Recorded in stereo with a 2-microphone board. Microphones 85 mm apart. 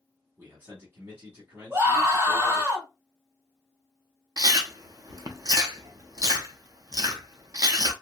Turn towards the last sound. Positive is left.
turn(degrees=-45)  # may be behind; listen again after turning